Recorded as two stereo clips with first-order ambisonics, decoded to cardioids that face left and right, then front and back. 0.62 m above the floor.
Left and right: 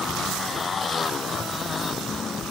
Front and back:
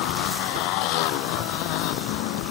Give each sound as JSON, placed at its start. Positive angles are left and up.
{"t": 0.0, "sound": "a motorcycle", "azimuth_deg": 20}